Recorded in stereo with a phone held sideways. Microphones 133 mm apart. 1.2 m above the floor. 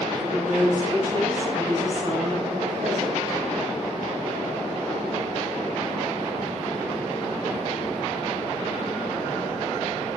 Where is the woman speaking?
15° right (ahead or behind), 5 m; by 3.4 s 50° right (ahead or behind), 4.5 m.